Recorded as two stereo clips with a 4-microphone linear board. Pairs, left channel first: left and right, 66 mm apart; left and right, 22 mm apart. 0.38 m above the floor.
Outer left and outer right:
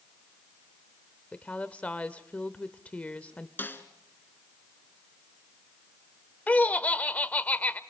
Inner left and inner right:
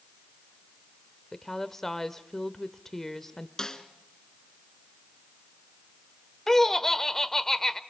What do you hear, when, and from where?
1.3 s a woman speaking: 20° left (ahead or behind), 0.9 m
3.6 s a snare drum: 30° left (ahead or behind), 1.9 m
6.5 s laughter: 20° left (ahead or behind), 0.9 m